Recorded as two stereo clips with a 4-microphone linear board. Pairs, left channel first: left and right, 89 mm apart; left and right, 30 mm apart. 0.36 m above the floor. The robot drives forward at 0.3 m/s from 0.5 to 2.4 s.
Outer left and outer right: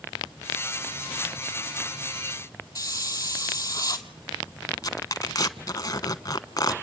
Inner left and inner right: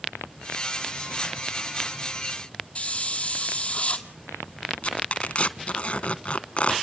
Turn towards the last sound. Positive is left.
turn(degrees=45)  # may be behind; listen again after turning